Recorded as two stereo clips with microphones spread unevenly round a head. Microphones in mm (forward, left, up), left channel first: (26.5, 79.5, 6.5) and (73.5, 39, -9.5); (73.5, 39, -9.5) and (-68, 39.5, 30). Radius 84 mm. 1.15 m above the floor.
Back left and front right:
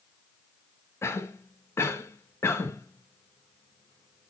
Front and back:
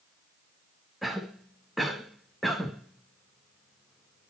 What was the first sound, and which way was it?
A cough, 90° left.